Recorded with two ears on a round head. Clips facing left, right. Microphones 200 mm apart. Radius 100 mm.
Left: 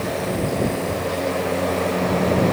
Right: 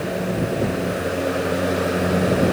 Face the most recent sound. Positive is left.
No sound to turn to.